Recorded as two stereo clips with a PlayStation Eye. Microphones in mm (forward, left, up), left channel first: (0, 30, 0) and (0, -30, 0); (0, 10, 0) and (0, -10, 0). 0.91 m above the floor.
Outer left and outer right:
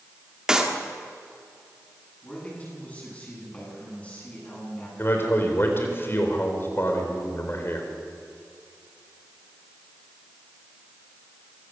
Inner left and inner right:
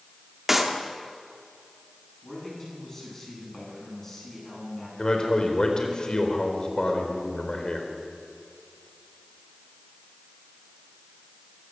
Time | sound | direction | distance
0.5 | a clap | 10° right (ahead or behind) | 2 m
2.2 | a man speaking | 20° left (ahead or behind) | 9.5 m
5.0 | a man speaking | 40° left (ahead or behind) | 4 m